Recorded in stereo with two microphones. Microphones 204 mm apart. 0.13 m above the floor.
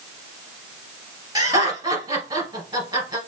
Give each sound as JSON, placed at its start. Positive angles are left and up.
{"t": 1.4, "sound": "laughter", "side_deg": -15, "distance_m": 2.0}